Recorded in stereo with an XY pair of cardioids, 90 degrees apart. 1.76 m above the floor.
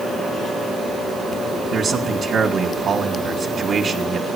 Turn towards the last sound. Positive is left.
turn(degrees=-55)